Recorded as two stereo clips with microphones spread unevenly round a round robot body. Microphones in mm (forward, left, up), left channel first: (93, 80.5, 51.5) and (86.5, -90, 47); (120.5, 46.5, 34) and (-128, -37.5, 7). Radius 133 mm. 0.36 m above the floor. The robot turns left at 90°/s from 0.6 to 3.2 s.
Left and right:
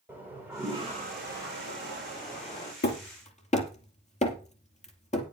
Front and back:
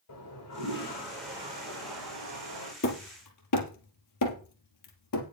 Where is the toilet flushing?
15° right, 8.5 m; by 2.7 s 155° left, 8.5 m.